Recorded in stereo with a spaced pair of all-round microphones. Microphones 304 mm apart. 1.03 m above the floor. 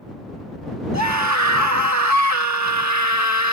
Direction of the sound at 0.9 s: 65° right (ahead or behind).